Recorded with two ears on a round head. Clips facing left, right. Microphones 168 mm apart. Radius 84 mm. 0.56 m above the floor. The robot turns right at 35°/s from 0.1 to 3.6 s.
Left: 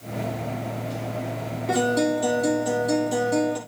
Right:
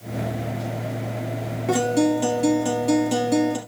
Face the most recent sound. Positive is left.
turn(degrees=-60)